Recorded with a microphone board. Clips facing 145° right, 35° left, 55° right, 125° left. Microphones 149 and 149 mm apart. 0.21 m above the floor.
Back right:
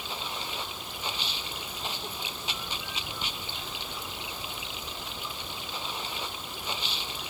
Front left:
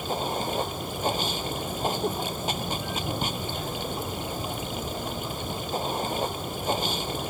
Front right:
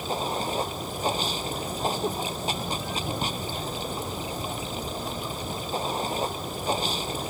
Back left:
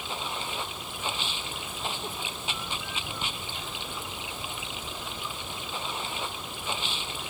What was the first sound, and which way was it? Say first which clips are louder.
Running water: front left 10 dB, front right 7 dB; 5° right.